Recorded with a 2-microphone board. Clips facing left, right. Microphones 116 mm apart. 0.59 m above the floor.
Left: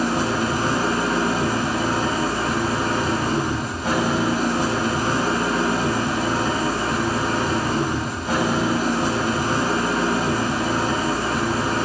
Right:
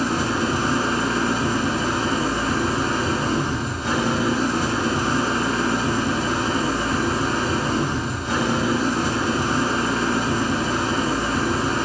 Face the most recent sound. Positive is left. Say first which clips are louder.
# left 1 dB
turn(degrees=55)  # may be behind; listen again after turning